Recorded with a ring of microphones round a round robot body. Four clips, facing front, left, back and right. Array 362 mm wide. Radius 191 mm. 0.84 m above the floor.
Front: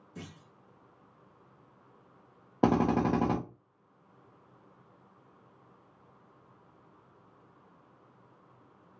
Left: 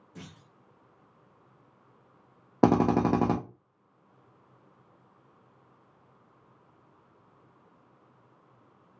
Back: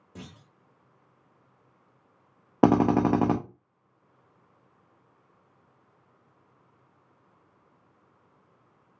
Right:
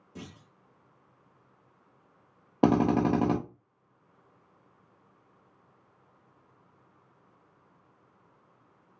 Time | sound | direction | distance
0.1 | a clunk | 170° right | 0.8 m
2.6 | a drill | 160° left | 0.6 m